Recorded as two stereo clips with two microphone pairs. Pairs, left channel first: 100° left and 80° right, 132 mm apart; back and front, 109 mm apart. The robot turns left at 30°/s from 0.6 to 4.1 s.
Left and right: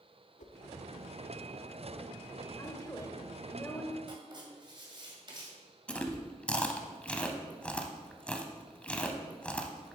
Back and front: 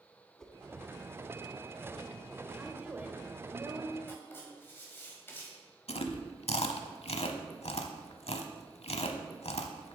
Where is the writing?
115° right, 2.0 m.